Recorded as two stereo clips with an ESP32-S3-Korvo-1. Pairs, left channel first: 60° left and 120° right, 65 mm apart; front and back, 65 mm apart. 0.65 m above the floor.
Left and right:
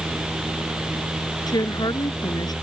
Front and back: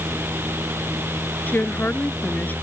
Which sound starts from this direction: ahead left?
A woman speaking, at 1.5 s.